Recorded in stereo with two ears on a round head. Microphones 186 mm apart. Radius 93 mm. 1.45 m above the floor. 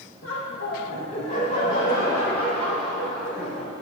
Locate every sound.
0.2 s laughter: 75° left (ahead or behind), 2.5 m; by 3.7 s 5° right (ahead or behind), 5 m